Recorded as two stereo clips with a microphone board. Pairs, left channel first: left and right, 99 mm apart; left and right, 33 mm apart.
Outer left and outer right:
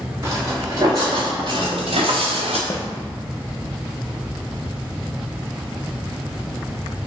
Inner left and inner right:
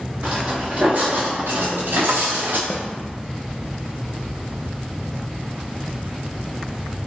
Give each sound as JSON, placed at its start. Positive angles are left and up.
{"t": 0.2, "sound": "footsteps", "side_deg": -30, "distance_m": 1.6}
{"t": 2.7, "sound": "a snare drum", "side_deg": 40, "distance_m": 0.6}